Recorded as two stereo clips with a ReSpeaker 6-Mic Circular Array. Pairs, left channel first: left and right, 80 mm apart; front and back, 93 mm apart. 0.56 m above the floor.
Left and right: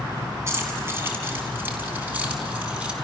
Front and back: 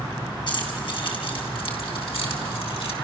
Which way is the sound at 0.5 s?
35° right.